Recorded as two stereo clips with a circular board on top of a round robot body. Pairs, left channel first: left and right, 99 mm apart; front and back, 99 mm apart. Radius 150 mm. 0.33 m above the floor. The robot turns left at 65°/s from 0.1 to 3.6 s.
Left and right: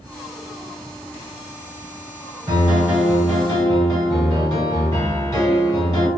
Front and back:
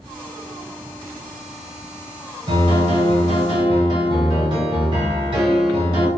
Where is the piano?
135° right, 1.0 m; by 6.1 s 150° left, 1.0 m.